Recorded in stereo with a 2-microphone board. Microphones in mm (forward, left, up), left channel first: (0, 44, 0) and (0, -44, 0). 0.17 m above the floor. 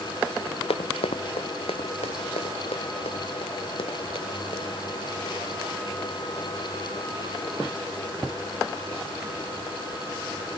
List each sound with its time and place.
0.7 s running footsteps: 80° left; by 10.5 s 85° left